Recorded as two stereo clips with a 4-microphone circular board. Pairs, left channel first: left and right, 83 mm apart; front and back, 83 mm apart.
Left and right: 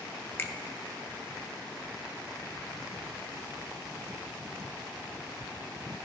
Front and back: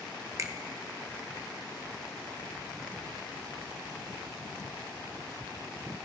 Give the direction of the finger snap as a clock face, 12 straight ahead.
7 o'clock.